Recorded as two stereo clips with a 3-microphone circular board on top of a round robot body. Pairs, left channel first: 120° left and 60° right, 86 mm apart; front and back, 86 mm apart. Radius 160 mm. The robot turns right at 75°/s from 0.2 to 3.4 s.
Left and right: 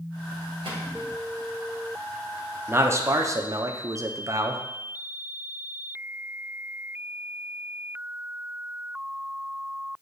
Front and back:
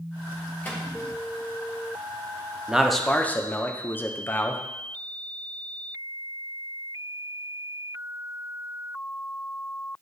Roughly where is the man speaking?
Right.